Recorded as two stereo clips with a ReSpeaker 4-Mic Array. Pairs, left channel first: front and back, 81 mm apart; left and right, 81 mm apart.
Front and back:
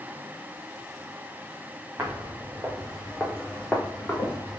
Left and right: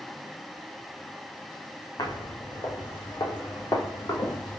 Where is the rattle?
No rattle in this recording.